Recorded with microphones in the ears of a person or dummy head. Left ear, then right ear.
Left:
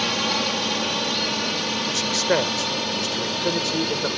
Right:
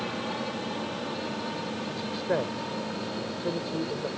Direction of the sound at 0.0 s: 65° left (ahead or behind).